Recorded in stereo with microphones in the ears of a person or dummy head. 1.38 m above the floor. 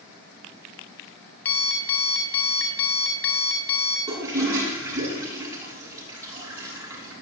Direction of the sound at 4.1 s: 20° right (ahead or behind).